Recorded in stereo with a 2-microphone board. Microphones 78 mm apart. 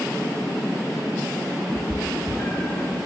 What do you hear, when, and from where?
1.7 s a cat meowing: 20° left (ahead or behind), 1.1 m